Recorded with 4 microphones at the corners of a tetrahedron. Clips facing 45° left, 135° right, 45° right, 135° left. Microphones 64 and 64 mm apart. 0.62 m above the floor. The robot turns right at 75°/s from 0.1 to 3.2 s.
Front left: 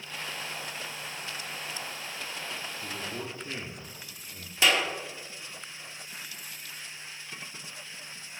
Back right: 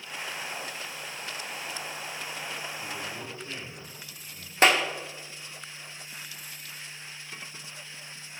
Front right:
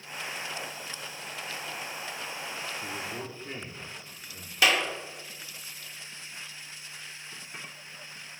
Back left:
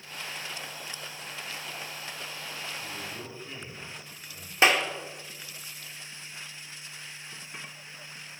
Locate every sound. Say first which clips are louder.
2.8 s a man speaking: even, front right 3 dB; 35° right, 1.5 m; by 4.5 s 5° right, 1.5 m
4.6 s a clap: back right 4 dB, back left 2 dB; 170° right, 1.3 m